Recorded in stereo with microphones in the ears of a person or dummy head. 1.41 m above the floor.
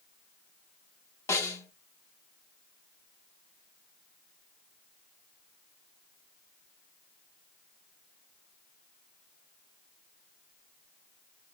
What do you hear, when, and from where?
1.3 s a snare drum: 10° left (ahead or behind), 0.9 m